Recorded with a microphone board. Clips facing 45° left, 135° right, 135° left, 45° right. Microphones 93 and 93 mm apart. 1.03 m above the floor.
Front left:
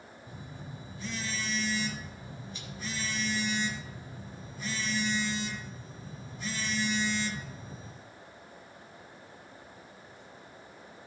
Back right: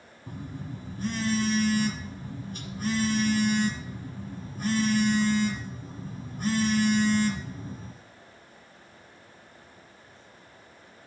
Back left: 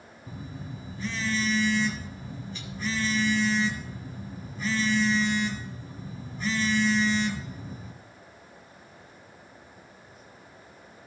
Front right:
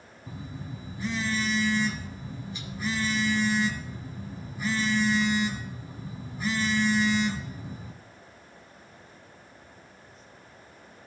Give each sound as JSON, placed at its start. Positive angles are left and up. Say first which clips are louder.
{"t": 0.3, "sound": "a phone buzzing", "louder": "back right 8 dB, even", "azimuth_deg": -125, "distance_m": 1.4}